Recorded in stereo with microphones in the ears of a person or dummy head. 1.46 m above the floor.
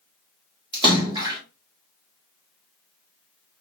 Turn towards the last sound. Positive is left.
turn(degrees=-25)  # may be behind; listen again after turning